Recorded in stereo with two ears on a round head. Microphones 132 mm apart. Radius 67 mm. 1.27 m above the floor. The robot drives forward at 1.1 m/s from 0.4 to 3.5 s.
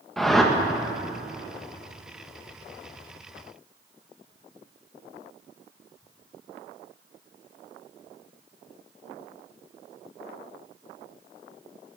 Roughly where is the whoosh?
Centre.